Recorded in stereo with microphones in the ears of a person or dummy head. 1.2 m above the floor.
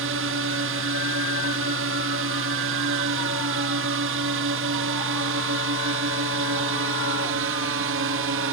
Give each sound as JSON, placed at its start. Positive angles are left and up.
{"t": 0.0, "sound": "a drone", "side_deg": -60}